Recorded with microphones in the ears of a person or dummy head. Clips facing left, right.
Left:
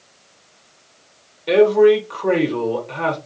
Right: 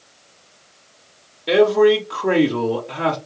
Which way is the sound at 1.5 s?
5° right (ahead or behind).